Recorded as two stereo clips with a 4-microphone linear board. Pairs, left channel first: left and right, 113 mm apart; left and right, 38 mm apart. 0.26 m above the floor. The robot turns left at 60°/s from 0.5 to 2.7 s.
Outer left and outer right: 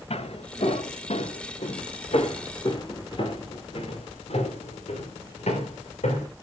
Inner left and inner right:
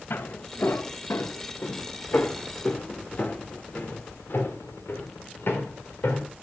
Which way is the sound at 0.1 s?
65° left (ahead or behind).